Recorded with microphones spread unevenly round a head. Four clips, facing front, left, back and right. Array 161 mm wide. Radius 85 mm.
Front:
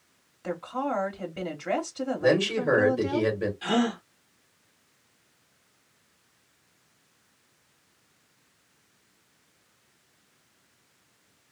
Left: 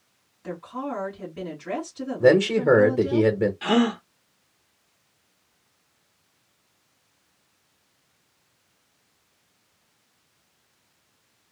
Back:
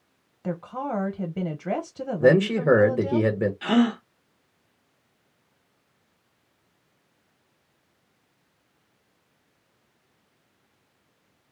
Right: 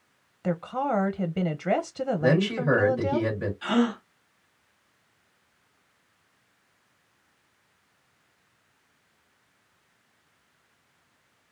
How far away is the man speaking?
About 1.2 m.